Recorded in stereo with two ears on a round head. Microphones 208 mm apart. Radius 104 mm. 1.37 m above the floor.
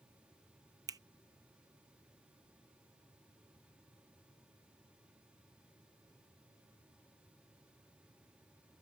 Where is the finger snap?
15° right (ahead or behind).